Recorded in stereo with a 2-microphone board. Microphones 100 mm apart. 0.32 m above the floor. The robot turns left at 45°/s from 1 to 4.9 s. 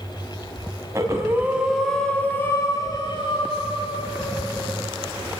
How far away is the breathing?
About 2.5 m.